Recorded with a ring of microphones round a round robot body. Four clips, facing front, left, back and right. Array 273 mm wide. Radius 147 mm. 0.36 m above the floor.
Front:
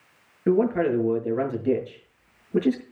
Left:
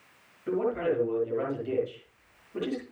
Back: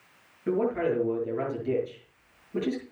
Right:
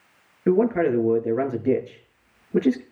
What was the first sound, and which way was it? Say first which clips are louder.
A man speaking: right 8 dB, front 5 dB; 60° right.